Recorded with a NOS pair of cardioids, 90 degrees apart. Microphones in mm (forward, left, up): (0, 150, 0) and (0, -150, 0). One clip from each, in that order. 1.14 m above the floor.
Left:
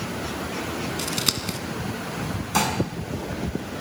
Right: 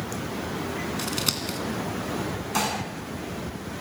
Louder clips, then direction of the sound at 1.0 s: Left 3 dB; 15° left.